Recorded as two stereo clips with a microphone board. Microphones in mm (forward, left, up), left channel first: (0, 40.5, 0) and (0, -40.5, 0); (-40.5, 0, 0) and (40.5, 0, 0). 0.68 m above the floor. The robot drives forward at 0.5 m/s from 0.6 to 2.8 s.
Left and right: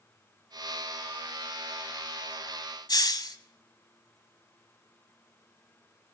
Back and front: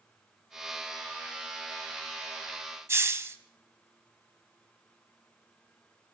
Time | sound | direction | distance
2.9 | a hiss | 60° left | 1.1 m